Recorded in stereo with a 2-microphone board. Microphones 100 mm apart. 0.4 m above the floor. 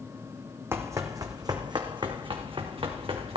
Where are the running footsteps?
25° right (ahead or behind), 1.3 m; by 3.4 s 65° right (ahead or behind), 2.5 m.